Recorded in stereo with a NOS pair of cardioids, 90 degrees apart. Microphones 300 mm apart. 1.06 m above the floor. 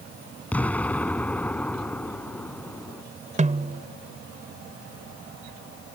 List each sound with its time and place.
0.5 s an explosion: 5° left
3.4 s a snare drum: 25° right